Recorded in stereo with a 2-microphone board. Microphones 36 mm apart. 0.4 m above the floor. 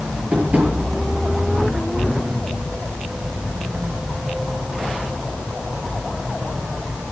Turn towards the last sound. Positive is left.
turn(degrees=-40)  # may be behind; listen again after turning